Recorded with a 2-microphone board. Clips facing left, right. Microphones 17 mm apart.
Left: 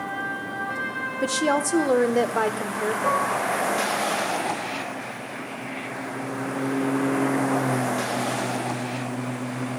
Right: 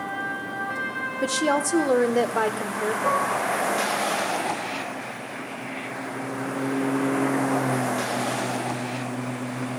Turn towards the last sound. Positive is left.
turn(degrees=50)  # may be behind; listen again after turning